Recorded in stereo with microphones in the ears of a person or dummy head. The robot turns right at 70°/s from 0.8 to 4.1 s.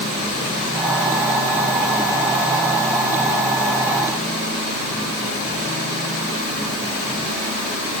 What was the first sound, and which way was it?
Only background noise.